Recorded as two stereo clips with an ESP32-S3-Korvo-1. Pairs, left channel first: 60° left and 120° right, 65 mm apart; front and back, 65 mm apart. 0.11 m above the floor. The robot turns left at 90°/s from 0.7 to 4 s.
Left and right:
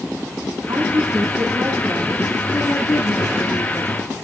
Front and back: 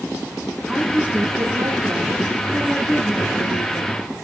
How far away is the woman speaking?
About 3 m.